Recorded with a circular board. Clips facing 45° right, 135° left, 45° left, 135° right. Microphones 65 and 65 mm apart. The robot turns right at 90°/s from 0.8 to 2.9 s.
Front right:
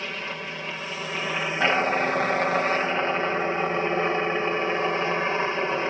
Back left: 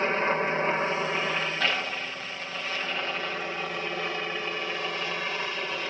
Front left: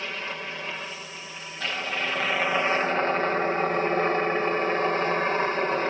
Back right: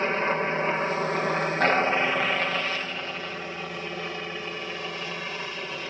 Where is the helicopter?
Straight behind; by 5.9 s 10° left.